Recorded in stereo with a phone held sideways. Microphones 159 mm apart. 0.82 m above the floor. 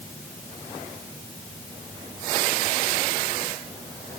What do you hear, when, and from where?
Only background noise.